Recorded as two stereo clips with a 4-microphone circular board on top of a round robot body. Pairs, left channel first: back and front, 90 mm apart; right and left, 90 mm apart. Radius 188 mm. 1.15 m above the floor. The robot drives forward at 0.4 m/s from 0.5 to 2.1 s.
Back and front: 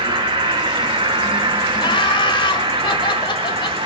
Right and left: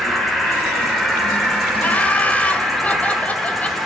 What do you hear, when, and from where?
0.0 s an insect: straight ahead, 2.5 m
1.8 s laughter: 160° right, 1.4 m